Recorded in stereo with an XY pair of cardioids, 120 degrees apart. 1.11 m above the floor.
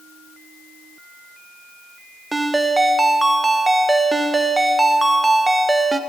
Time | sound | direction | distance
2.3 | a ringtone | 10° right | 0.6 m